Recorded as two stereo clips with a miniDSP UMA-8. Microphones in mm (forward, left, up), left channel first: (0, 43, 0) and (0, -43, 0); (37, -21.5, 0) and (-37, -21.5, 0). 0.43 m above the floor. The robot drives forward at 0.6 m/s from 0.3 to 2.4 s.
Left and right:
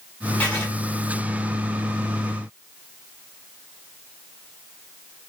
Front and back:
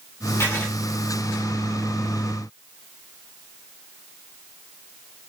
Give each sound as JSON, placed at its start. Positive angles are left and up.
{"t": 0.4, "sound": "writing", "azimuth_deg": 30, "distance_m": 1.5}